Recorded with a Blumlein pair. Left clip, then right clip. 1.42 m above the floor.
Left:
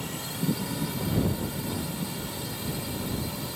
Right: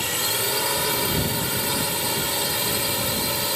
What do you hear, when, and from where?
0.0 s a drone: 55° right